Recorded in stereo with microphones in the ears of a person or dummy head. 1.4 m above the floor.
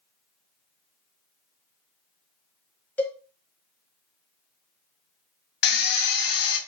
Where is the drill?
55° left (ahead or behind), 0.7 m.